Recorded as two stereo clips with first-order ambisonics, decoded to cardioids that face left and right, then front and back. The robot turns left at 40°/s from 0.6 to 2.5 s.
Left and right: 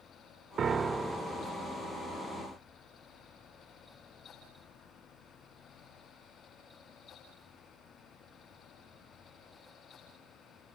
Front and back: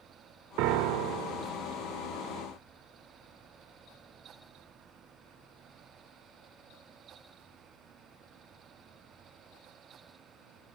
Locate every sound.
0.6 s a piano: 155° right, 0.6 m; by 1.5 s 170° left, 0.6 m